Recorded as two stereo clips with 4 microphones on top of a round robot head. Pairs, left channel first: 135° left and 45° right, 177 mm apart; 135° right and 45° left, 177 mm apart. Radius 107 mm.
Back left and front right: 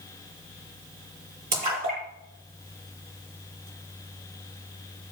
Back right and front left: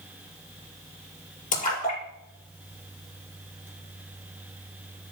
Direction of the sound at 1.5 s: 90° right.